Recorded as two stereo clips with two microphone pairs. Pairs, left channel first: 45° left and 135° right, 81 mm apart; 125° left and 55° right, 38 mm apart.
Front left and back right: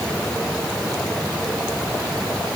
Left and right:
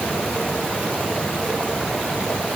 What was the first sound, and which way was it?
Only background noise.